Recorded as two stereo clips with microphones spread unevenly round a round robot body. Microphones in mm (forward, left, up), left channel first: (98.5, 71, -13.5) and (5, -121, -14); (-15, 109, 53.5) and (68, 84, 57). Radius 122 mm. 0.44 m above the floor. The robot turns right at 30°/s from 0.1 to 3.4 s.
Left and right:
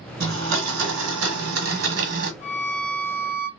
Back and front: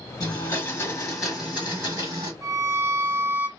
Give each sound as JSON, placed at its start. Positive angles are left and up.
{"t": 0.2, "sound": "a blender", "azimuth_deg": -140, "distance_m": 1.1}
{"t": 2.4, "sound": "a violin", "azimuth_deg": 20, "distance_m": 0.5}